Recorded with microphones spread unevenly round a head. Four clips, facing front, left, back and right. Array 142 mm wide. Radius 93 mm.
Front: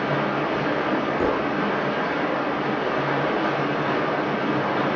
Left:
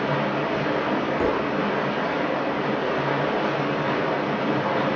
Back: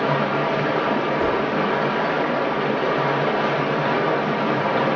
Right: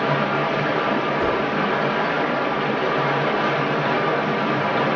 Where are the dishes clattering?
50° left, 1.8 m.